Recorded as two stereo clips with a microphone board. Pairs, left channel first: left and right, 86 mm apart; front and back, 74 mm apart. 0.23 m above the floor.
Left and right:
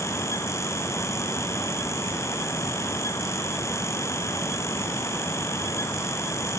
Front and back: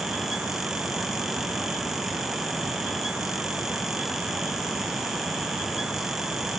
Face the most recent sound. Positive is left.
No sound to turn to.